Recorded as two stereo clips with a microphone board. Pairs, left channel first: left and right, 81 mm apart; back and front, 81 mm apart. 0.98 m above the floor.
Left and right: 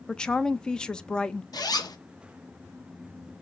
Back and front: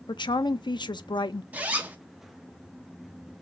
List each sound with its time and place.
0.1 s a woman speaking: 170° left, 0.5 m
1.5 s a zipper: 70° left, 0.9 m